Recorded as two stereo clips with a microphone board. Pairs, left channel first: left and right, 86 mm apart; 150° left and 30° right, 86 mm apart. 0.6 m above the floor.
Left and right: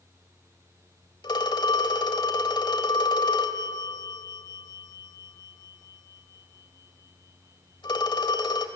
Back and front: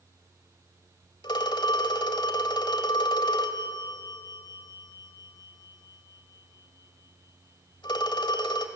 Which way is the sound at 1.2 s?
120° left.